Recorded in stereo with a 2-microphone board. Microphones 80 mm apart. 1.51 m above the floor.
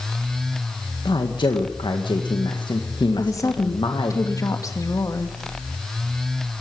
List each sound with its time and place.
1.1 s a man speaking: 75° left (ahead or behind), 2.0 m
3.2 s a woman speaking: 45° left (ahead or behind), 2.5 m